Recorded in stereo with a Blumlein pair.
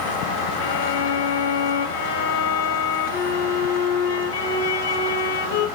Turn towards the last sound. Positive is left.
turn(degrees=55)